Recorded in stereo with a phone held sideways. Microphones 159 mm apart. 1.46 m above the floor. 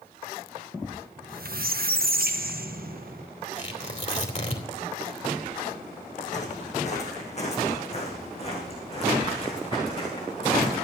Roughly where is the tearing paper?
Left.